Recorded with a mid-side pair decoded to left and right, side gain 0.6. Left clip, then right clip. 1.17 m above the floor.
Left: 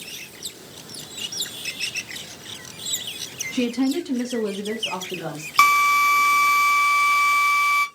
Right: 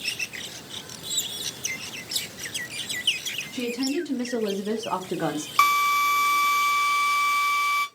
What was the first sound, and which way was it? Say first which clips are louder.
A woman speaking: left 6 dB; 45° left.